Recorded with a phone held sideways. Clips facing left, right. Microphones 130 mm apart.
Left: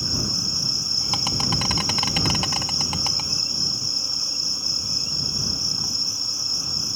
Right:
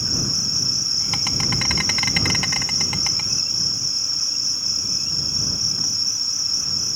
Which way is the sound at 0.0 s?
25° left (ahead or behind).